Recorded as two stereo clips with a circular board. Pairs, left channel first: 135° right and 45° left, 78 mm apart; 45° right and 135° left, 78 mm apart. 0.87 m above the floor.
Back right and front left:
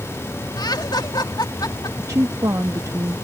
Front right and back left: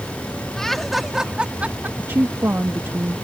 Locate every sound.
0.6 s laughter: 125° right; by 1.9 s 160° right
2.0 s a woman speaking: 80° left